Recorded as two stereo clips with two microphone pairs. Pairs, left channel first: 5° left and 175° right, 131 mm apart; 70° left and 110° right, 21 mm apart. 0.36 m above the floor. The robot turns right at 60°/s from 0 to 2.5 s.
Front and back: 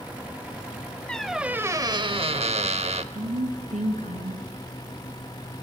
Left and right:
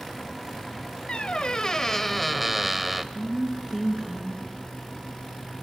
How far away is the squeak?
About 0.6 m.